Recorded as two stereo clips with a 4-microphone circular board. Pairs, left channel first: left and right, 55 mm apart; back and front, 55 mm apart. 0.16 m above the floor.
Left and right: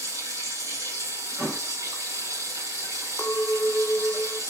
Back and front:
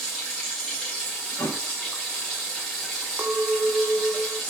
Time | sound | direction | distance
0.0 | running water | 85° right | 7.5 m
1.4 | a thud | 155° right | 2 m
3.2 | a clink | 45° left | 2.5 m